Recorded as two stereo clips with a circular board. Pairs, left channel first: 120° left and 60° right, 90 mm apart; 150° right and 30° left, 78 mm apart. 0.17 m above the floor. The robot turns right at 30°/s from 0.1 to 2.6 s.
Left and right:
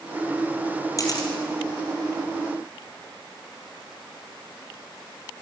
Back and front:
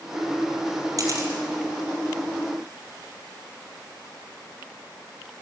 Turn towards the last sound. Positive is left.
turn(degrees=120)